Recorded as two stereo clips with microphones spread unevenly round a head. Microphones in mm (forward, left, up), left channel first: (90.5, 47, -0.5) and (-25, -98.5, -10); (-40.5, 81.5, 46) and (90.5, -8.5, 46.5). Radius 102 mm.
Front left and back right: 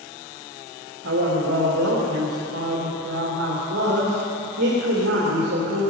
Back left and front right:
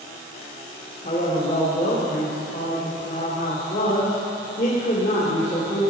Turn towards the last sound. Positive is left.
turn(degrees=-165)